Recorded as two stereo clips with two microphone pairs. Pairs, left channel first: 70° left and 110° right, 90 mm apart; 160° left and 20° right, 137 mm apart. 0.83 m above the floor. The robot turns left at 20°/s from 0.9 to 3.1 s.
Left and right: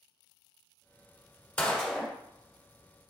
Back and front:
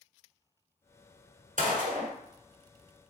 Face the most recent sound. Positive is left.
turn(degrees=-40)